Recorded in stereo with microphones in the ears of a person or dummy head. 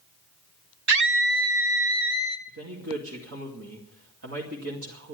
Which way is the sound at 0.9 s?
60° right (ahead or behind).